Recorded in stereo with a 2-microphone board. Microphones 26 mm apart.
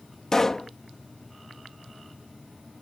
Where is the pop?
20° left (ahead or behind).